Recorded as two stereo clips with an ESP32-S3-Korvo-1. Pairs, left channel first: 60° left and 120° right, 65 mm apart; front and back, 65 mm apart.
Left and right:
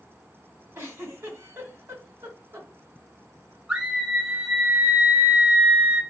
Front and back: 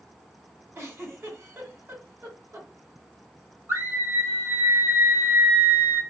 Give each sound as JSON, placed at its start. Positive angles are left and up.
{"t": 0.8, "sound": "a giggle", "azimuth_deg": -150, "distance_m": 1.8}
{"t": 3.7, "sound": "a scream", "azimuth_deg": 165, "distance_m": 1.2}